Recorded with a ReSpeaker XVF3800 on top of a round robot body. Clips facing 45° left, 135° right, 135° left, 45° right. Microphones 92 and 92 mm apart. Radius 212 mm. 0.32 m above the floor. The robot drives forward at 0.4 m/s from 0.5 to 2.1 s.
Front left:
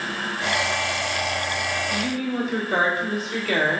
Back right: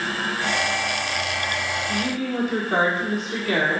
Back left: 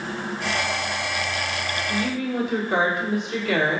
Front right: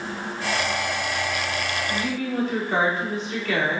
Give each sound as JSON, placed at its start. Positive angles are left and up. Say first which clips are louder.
{"t": 1.9, "sound": "a woman speaking", "louder": "back right 2 dB, back left 3 dB", "azimuth_deg": -155, "distance_m": 1.5}